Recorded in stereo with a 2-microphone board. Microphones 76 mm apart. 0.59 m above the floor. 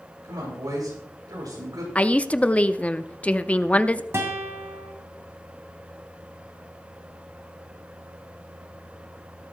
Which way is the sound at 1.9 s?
20° left (ahead or behind).